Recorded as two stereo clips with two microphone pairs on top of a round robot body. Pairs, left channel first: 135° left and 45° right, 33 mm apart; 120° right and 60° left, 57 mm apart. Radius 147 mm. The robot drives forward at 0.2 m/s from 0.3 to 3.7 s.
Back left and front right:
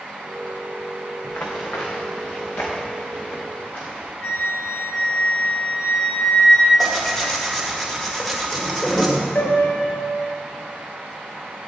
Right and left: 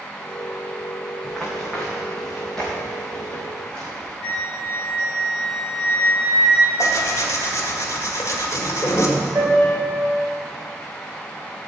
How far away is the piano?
About 4 m.